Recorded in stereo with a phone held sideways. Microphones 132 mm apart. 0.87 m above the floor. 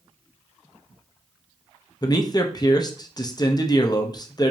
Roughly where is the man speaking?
Left.